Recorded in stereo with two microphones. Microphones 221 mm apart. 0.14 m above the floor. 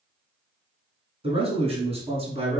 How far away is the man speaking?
About 1.3 m.